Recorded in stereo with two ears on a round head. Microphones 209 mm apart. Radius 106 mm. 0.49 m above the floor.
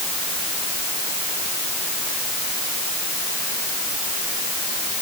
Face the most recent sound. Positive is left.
No sound to turn to.